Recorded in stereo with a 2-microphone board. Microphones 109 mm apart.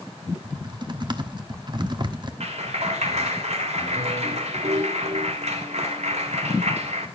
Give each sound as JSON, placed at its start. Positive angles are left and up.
{"t": 0.4, "sound": "typing on a keyboard", "side_deg": -45, "distance_m": 1.1}
{"t": 2.4, "sound": "a clap", "side_deg": -80, "distance_m": 2.5}